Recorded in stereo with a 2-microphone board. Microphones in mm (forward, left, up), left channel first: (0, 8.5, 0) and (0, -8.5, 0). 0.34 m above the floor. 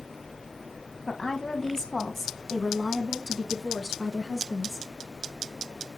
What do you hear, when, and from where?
1.1 s a woman speaking: 45° left (ahead or behind), 2 m; by 4.9 s 5° right (ahead or behind), 4.5 m